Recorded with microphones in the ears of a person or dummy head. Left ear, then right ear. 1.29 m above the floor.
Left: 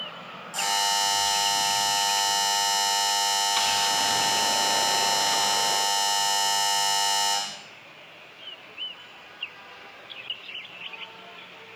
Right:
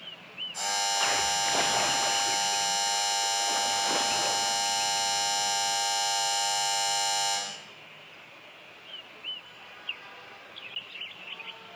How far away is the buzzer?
About 1.4 m.